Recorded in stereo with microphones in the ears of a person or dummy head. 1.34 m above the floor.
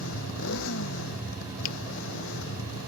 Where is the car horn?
I don't hear a car horn.